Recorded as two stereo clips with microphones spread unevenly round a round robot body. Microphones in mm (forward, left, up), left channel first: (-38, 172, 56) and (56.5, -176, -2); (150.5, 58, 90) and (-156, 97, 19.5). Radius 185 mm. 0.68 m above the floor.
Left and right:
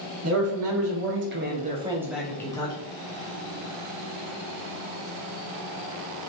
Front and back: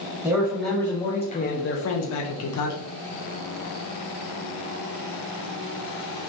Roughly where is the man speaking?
Behind right.